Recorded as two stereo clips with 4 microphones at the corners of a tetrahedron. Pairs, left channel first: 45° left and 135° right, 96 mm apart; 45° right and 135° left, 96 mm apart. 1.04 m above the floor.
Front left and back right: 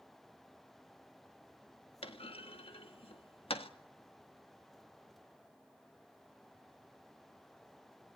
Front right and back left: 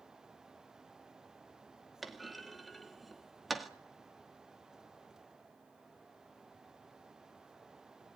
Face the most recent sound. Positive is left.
turn(degrees=45)